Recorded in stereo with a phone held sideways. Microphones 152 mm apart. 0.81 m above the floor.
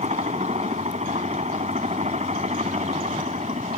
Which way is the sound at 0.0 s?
45° right (ahead or behind).